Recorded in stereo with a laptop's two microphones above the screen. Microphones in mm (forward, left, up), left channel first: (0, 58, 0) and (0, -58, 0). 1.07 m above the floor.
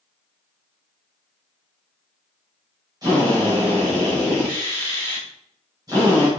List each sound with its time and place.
3.0 s a drill: 30° right (ahead or behind), 4 m